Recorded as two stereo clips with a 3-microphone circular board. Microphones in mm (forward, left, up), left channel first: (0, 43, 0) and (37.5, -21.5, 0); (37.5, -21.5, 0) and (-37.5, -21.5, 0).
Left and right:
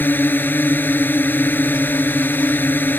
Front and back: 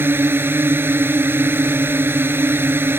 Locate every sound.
0.0 s a drone: 155° left